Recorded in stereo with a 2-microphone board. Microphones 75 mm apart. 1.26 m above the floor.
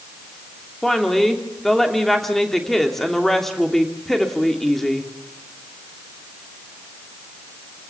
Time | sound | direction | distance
0.8 | a woman speaking | 5° left (ahead or behind) | 3 m